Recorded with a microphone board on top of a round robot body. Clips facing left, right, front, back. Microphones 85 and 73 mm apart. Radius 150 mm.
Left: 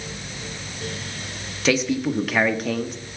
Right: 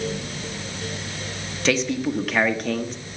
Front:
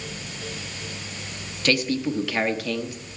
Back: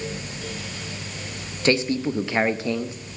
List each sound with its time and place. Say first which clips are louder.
1.6 s a man speaking: left 1 dB, back 2 dB; 175° left, 1.1 m